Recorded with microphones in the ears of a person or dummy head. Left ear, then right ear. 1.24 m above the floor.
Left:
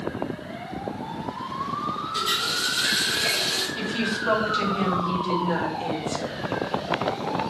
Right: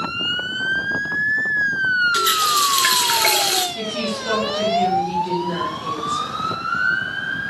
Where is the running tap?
60° right (ahead or behind), 0.8 m.